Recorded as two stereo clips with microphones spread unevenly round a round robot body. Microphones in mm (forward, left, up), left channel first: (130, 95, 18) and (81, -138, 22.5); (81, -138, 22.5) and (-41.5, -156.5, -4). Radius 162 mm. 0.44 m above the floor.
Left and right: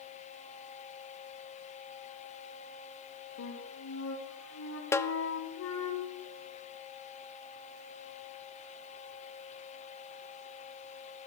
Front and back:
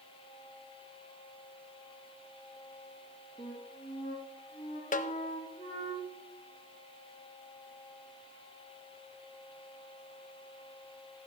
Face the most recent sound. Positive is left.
turn(degrees=0)